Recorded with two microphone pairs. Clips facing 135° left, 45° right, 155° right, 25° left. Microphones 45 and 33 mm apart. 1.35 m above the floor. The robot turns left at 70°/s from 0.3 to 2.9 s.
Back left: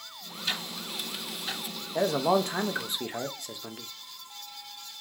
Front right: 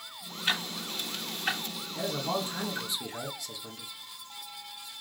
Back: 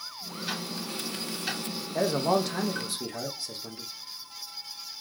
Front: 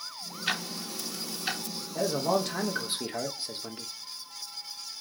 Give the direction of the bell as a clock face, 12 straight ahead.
I don't hear a bell.